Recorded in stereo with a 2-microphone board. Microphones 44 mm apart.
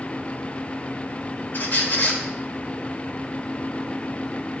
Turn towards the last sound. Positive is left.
turn(degrees=50)  # may be behind; listen again after turning